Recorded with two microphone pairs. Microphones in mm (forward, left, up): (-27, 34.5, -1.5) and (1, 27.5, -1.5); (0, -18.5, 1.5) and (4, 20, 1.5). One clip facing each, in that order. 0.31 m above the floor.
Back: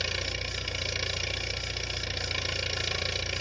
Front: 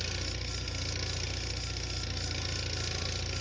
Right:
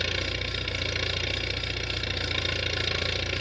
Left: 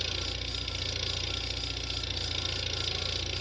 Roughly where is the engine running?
Behind right.